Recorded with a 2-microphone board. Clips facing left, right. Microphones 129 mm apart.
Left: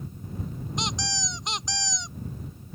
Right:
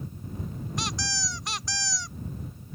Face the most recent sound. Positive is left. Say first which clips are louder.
# left 2 dB
turn(degrees=20)  # may be behind; listen again after turning